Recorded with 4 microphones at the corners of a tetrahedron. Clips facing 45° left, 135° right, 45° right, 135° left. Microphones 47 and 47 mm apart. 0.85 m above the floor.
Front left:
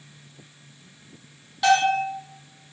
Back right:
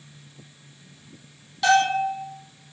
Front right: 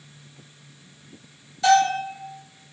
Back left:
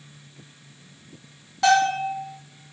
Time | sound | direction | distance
1.6 | a bell | 125° left | 1.4 m